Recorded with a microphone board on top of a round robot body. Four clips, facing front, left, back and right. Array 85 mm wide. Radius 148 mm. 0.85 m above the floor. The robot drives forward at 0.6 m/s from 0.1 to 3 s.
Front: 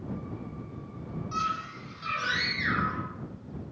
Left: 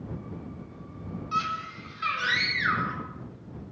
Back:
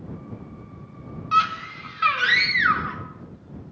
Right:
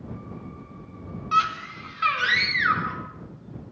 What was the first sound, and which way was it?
A scream, 145° right.